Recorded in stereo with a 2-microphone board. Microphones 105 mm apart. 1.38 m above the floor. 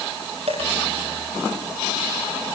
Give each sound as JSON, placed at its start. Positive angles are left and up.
{"t": 0.5, "sound": "a dropped coin", "side_deg": -70, "distance_m": 7.5}